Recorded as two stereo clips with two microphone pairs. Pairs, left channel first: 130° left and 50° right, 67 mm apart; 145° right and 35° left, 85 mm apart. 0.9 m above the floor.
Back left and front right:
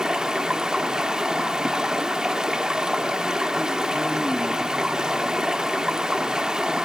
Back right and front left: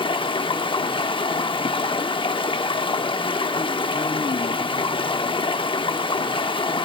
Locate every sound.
0.0 s running water: 130° right, 0.8 m